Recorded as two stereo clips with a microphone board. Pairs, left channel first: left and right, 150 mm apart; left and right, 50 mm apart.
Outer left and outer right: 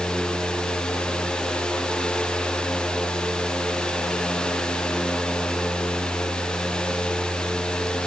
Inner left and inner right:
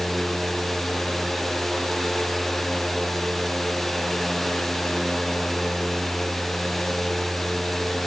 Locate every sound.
Only background noise.